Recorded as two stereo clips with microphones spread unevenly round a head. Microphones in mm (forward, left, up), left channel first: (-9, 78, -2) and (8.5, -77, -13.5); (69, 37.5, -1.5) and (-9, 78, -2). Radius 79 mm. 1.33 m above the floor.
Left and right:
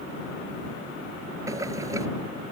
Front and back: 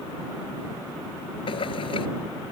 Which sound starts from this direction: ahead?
Boiling, at 1.5 s.